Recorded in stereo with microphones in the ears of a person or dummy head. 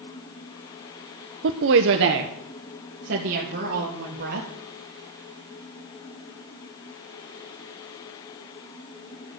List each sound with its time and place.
1.4 s a woman speaking: 65° right (ahead or behind), 0.6 m; by 4.5 s 60° right (ahead or behind), 2.5 m